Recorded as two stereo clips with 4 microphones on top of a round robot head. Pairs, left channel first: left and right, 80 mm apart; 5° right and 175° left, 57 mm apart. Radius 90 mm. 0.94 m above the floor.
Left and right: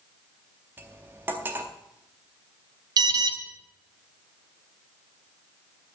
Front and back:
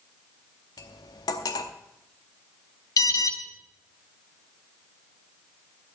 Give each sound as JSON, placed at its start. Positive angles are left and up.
{"t": 0.8, "sound": "cutlery clinking", "azimuth_deg": -20, "distance_m": 0.8}
{"t": 3.0, "sound": "an alarm", "azimuth_deg": -40, "distance_m": 1.0}